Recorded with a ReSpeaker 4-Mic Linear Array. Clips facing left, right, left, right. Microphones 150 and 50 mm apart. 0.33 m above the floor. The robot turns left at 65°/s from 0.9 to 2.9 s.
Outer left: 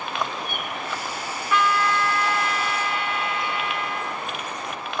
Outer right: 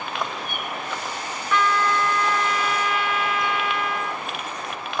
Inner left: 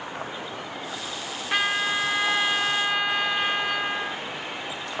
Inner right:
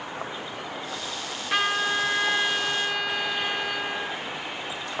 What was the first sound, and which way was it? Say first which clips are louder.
A trumpet: even, even; 5° left (ahead or behind).